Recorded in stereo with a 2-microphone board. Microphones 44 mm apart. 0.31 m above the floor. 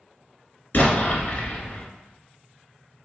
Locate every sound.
0.7 s an explosion: 45° left (ahead or behind), 0.9 m